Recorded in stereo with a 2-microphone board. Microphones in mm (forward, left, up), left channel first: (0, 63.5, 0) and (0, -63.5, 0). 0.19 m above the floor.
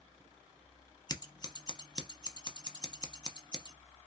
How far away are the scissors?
About 0.6 m.